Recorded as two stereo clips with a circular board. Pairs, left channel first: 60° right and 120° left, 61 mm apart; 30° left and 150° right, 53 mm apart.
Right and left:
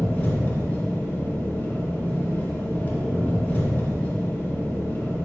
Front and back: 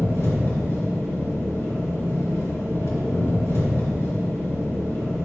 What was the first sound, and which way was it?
An engine running, 5° left.